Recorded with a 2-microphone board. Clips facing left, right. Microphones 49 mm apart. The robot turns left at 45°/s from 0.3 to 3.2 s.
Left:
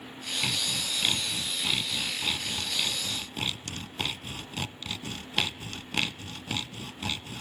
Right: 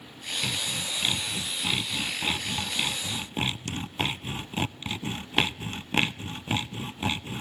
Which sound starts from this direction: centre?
Sawing, at 0.4 s.